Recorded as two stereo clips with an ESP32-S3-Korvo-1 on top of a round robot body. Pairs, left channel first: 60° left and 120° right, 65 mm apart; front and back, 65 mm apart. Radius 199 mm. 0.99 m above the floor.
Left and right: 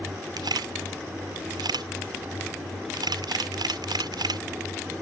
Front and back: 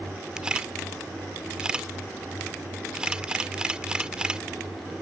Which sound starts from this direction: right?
A camera shutter, at 0.4 s.